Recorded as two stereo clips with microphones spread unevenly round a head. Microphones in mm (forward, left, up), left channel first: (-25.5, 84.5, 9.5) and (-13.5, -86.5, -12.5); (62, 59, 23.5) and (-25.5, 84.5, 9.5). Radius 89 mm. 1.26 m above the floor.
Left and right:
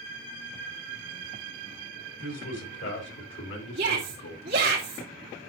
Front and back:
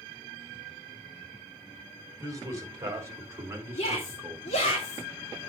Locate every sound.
2.2 s a man speaking: 110° left, 4.5 m; by 4.6 s 85° left, 1.8 m
3.8 s a shout: 35° right, 3.5 m